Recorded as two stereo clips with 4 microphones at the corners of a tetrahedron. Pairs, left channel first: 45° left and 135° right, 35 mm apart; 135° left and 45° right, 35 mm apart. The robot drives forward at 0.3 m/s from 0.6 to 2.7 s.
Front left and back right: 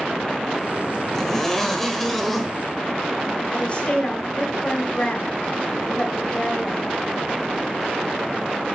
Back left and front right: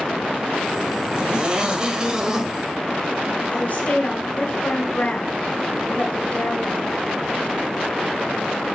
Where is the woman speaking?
95° left, 2.5 m.